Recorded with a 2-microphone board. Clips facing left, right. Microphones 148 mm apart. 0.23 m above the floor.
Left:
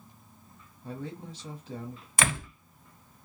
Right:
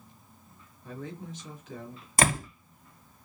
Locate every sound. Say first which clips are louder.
0.8 s a man speaking: left 1 dB; 35° left (ahead or behind), 1.4 m
2.2 s a door slam: right 4 dB; 40° right (ahead or behind), 0.8 m